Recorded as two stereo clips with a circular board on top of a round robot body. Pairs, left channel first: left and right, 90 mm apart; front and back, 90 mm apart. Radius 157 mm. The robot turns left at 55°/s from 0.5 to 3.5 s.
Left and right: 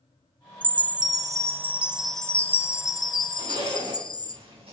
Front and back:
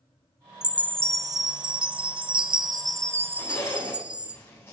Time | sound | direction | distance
0.6 | a chime | 100° right | 0.9 m
3.4 | a zipper | 60° right | 5 m